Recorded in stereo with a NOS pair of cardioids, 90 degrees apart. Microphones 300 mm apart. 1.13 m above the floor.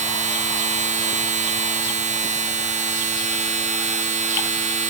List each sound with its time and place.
0.0 s a machine running: 25° right, 0.7 m